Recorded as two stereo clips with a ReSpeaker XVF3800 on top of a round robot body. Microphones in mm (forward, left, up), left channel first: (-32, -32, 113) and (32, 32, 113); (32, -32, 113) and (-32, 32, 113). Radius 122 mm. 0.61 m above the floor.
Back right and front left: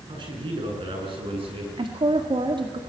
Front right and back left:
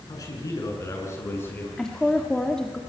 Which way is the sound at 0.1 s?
5° left.